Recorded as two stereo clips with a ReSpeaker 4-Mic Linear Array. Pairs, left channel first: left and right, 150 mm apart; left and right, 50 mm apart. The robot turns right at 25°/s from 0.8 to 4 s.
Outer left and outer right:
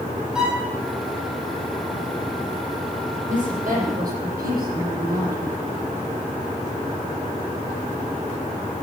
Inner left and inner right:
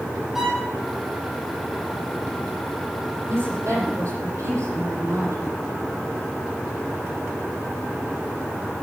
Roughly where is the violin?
Centre.